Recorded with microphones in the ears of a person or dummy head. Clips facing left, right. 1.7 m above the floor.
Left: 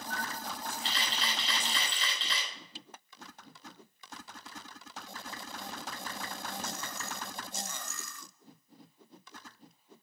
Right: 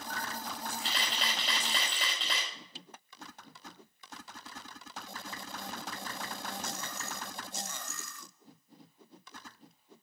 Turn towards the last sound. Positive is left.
turn(degrees=-50)  # may be behind; listen again after turning